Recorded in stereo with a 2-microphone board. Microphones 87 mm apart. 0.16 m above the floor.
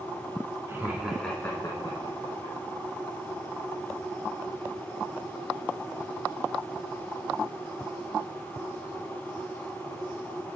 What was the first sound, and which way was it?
Laughter, 25° right (ahead or behind).